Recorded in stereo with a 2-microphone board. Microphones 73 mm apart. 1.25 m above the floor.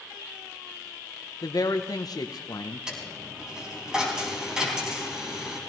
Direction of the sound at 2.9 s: 10° right (ahead or behind).